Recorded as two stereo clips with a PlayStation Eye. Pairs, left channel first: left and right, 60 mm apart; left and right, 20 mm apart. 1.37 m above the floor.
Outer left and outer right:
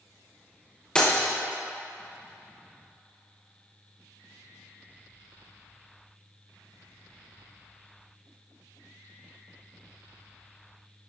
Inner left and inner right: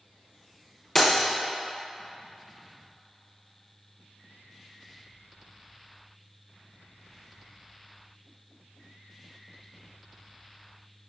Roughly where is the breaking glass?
Centre.